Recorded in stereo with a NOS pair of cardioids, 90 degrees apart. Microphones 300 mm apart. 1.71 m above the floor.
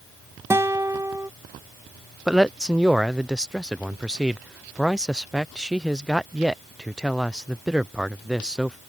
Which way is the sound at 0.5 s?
10° right.